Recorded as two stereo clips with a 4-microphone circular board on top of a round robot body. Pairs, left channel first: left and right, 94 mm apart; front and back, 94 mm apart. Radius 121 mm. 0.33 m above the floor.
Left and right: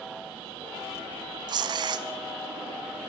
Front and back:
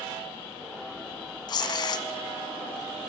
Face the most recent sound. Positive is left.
turn(degrees=-45)